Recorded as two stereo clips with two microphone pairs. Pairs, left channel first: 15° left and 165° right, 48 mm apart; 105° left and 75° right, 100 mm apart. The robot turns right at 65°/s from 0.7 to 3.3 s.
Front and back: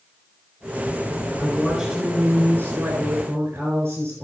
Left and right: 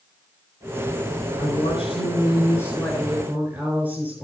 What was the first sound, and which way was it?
A woman speaking, 90° left.